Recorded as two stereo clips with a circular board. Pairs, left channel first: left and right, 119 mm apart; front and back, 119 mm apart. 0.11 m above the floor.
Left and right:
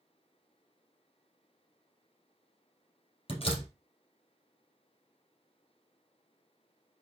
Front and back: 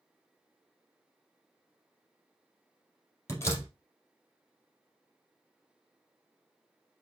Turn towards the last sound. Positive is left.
turn(degrees=65)